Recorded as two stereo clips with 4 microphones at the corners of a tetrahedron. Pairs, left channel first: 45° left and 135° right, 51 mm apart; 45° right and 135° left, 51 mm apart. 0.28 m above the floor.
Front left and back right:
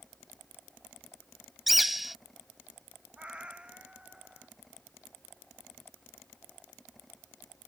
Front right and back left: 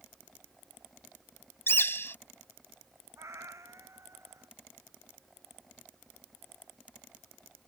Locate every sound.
1.7 s a bird: 50° right
3.2 s a cat meowing: 155° left